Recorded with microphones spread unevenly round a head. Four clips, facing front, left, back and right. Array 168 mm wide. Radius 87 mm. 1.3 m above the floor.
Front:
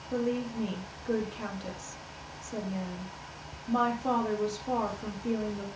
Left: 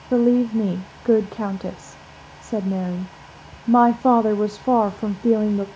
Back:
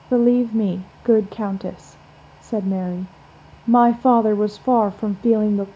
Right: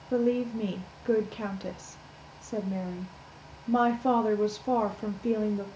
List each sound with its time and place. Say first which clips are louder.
0.1 s a woman speaking: left 9 dB, back 15 dB; 150° left, 0.6 m